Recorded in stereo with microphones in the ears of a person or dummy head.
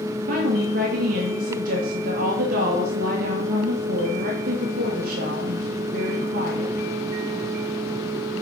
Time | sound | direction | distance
0.3 | a woman speaking | 55° right (ahead or behind) | 1.8 m